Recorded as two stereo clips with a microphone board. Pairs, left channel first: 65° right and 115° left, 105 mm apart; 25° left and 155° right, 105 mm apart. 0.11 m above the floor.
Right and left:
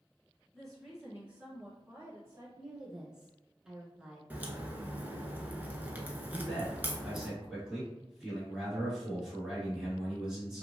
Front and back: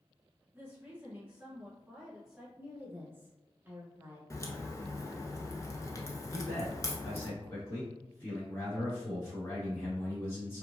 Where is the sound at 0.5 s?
135° right, 1.5 m; by 2.5 s 125° left, 1.7 m.